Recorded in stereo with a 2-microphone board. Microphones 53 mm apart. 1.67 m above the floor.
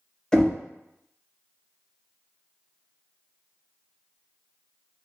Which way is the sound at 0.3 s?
15° left (ahead or behind).